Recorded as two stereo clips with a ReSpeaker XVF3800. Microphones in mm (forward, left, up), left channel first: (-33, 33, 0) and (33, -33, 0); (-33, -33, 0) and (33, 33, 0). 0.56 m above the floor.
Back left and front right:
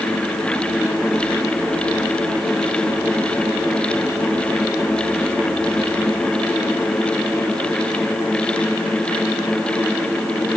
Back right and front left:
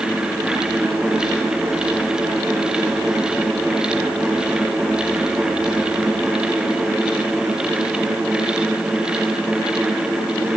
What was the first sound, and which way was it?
Only background noise.